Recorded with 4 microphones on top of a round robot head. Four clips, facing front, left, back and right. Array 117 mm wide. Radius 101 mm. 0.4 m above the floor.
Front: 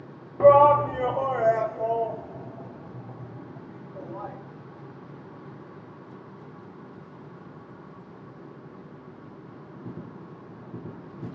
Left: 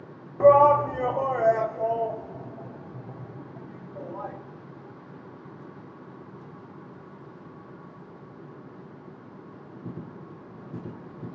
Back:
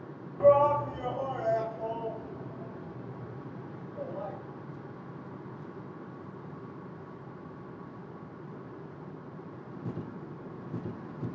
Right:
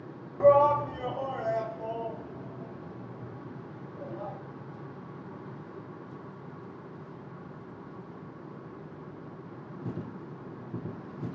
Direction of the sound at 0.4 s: 35° left.